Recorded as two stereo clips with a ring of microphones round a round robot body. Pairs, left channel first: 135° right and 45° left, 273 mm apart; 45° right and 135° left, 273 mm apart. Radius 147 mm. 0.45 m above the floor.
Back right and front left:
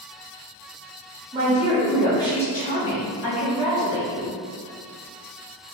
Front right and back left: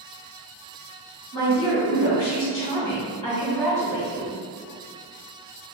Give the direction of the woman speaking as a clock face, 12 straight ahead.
1 o'clock.